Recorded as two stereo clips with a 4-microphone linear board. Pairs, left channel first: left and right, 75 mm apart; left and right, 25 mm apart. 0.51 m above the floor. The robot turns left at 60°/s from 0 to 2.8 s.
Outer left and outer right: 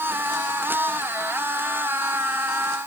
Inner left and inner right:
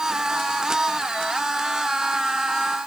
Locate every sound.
Only background noise.